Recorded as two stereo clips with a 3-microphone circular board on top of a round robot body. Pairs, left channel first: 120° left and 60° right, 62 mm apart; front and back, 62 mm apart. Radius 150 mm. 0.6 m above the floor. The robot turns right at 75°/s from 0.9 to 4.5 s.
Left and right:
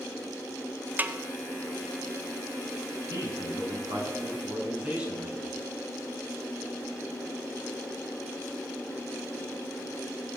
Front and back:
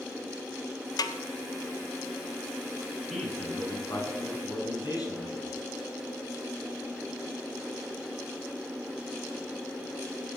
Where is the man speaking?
90° right, 4 m; by 5.6 s 15° left, 4 m.